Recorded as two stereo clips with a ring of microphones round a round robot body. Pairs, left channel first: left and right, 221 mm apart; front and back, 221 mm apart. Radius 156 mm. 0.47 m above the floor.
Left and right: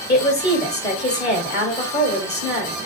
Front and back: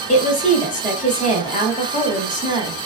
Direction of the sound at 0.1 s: 50° left.